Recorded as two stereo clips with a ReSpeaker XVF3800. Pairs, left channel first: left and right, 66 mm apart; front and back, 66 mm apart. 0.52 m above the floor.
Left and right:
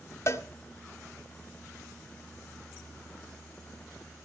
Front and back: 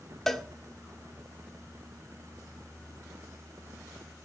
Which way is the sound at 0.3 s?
85° left.